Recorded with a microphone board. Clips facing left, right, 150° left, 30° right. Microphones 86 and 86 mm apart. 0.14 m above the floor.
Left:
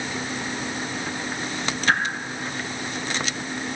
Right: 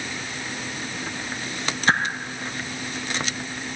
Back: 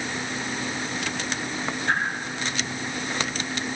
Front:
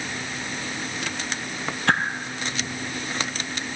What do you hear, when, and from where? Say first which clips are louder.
1.9 s a whoosh: right 1 dB, front 4 dB; 35° right, 1.0 m